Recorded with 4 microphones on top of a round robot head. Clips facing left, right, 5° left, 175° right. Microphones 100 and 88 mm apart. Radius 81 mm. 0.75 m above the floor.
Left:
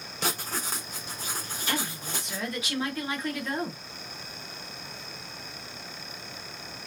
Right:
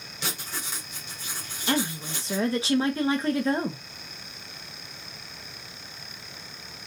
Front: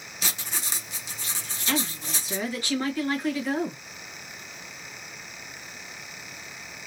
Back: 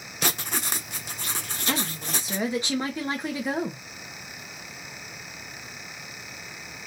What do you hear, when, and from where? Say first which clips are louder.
0.2 s writing: left 4 dB, back 6 dB; 150° left, 0.5 m
1.7 s a woman speaking: right 6 dB, front 1 dB; 125° right, 1.1 m